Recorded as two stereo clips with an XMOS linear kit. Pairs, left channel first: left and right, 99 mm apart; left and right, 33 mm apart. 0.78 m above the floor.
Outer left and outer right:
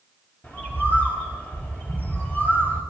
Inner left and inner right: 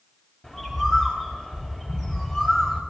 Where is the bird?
15° left (ahead or behind), 5 m.